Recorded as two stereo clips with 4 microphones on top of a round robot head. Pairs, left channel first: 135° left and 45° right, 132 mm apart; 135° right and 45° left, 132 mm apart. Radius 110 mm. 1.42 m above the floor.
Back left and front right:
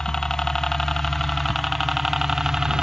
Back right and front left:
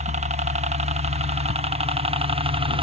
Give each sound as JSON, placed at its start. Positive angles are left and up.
{"t": 0.0, "sound": "a helicopter", "azimuth_deg": 55}